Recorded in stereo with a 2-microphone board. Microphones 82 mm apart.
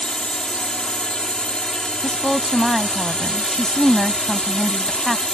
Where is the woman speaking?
5° left (ahead or behind).